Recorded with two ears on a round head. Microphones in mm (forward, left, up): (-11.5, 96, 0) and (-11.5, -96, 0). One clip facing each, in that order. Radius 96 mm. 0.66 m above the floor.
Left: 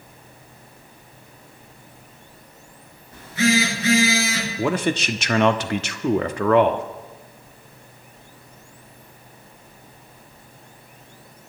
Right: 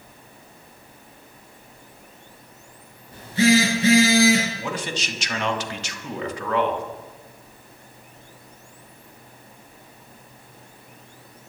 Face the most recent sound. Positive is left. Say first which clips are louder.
# left 8 dB
turn(degrees=50)  # may be behind; listen again after turning